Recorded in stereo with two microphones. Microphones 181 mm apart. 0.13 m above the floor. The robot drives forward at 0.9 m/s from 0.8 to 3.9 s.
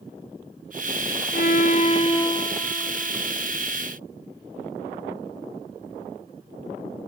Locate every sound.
1.3 s a violin: 55° left (ahead or behind), 0.6 m; by 3.6 s 15° left (ahead or behind), 2 m